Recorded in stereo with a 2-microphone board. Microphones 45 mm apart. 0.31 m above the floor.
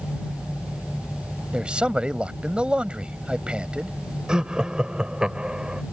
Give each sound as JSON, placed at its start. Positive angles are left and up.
{"t": 1.5, "sound": "a man speaking", "side_deg": -25}
{"t": 4.3, "sound": "laughter", "side_deg": -20}